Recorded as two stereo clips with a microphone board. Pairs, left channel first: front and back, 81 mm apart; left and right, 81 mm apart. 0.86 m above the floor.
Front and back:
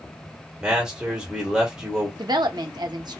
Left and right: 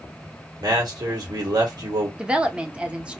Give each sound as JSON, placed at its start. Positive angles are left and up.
{"t": 0.6, "sound": "a man speaking", "azimuth_deg": -105, "distance_m": 1.2}
{"t": 2.2, "sound": "a woman speaking", "azimuth_deg": -165, "distance_m": 0.6}